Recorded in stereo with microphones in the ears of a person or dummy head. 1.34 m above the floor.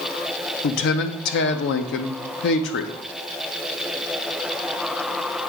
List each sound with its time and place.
0.6 s a man speaking: 65° left (ahead or behind), 0.9 m